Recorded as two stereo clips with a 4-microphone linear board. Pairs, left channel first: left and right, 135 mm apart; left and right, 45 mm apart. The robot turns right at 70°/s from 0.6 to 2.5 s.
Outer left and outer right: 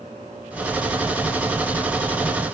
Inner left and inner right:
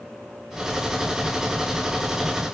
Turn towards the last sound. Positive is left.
No sound to turn to.